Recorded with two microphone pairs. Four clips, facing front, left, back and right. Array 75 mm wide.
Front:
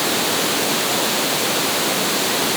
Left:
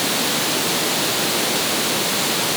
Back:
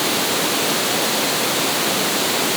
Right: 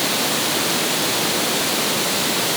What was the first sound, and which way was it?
Only background noise.